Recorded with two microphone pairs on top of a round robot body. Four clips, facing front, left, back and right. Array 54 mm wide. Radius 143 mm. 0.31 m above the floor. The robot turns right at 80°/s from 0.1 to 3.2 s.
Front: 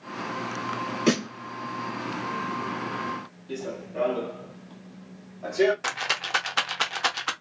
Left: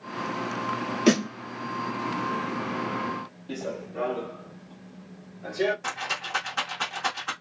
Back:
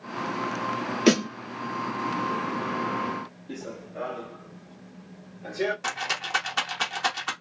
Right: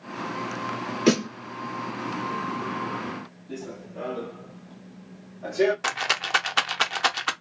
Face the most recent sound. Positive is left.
turn(degrees=-75)